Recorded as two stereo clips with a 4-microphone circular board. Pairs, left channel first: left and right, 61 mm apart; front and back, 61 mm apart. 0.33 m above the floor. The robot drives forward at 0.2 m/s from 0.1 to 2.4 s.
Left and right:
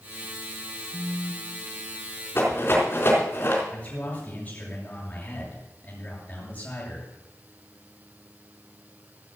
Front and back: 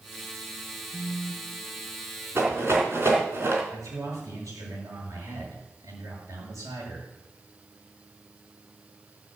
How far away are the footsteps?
I don't hear footsteps.